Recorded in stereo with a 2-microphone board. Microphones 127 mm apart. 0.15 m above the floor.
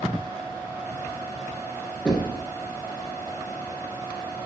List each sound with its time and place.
2.0 s knocking: 5° left (ahead or behind), 1.9 m